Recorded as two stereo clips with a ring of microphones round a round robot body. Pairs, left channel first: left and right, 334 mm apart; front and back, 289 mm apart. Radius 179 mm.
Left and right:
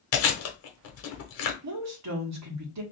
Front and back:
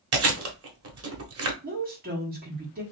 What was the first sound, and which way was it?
Chewing, 140° left.